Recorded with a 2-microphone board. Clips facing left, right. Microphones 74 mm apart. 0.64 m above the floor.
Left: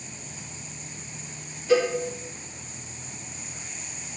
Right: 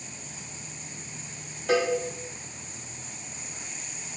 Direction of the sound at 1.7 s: 75° right (ahead or behind).